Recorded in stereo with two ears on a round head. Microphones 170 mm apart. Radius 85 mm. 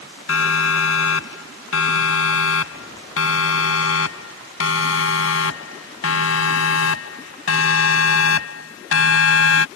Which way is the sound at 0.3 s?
80° left.